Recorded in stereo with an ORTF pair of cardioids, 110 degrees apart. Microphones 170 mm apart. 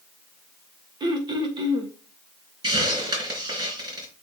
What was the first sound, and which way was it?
Throat clearing, 25° right.